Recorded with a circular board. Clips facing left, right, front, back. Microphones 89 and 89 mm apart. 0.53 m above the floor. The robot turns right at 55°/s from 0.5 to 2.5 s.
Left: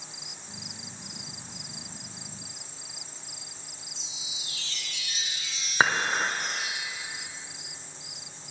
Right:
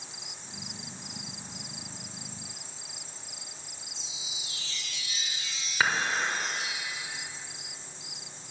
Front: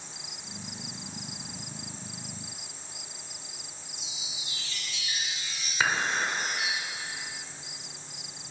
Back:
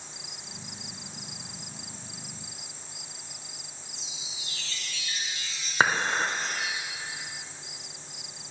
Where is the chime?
75° left, 1.5 m.